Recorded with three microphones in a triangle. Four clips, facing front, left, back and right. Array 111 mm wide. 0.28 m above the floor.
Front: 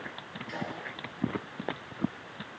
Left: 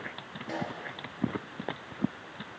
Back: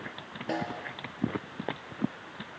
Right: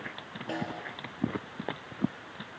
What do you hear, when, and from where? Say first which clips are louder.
0.5 s a snare drum: even, back 5 dB; 165° right, 4 m